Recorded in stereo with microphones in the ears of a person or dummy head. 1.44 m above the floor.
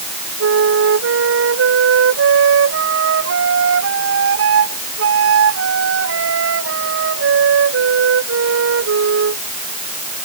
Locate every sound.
0.4 s a flute: 75° right (ahead or behind)